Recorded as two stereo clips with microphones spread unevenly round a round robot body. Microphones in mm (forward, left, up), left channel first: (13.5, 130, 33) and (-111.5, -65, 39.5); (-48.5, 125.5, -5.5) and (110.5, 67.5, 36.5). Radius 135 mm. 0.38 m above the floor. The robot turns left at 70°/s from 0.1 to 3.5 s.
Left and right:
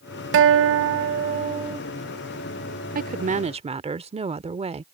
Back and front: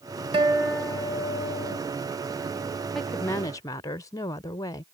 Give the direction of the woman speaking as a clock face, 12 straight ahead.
4 o'clock.